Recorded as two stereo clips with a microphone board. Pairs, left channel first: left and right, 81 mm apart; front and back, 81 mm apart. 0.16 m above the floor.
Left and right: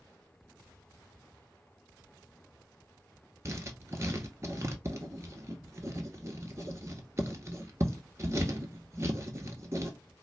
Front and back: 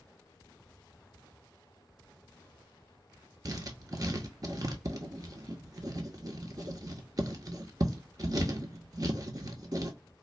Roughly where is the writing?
Behind right.